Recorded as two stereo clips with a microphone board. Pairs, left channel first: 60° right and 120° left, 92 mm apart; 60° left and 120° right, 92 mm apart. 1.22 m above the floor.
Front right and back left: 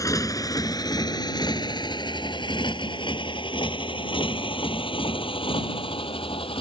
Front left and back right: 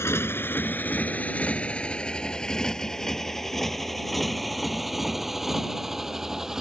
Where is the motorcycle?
5° right; by 6.6 s 35° right.